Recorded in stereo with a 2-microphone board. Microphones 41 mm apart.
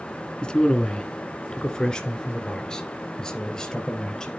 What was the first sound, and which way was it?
A man speaking, 20° left (ahead or behind).